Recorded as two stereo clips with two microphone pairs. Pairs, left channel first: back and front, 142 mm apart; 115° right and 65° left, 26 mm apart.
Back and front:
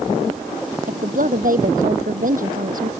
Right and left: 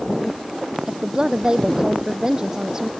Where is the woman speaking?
5° left.